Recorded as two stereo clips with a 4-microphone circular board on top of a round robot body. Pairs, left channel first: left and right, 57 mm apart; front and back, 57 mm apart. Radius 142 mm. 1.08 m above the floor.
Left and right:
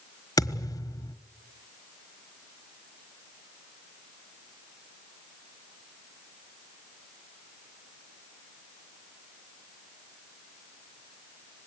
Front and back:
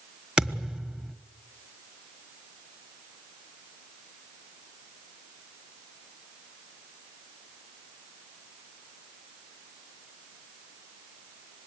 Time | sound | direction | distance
0.4 | a thud | 100° left | 1.3 m